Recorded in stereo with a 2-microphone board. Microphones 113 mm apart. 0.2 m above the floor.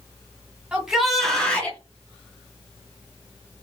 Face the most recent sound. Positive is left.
turn(degrees=15)  # may be behind; listen again after turning